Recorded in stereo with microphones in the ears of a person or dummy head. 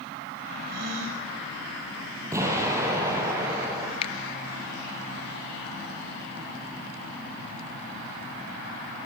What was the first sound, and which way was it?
A gasp, 55° right (ahead or behind).